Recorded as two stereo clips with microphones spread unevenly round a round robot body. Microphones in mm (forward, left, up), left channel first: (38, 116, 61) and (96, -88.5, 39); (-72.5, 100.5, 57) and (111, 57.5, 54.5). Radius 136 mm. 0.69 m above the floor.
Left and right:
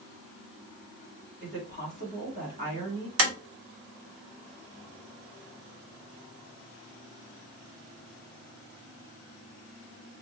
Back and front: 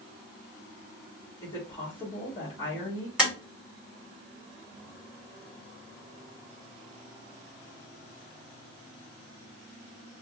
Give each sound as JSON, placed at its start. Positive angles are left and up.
{"t": 1.4, "sound": "a woman speaking", "azimuth_deg": -120, "distance_m": 2.0}
{"t": 3.2, "sound": "tapping", "azimuth_deg": -100, "distance_m": 1.5}